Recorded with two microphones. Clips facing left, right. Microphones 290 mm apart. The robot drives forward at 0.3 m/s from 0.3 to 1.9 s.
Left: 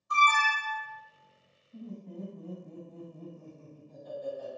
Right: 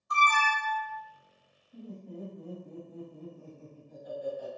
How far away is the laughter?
About 1.8 m.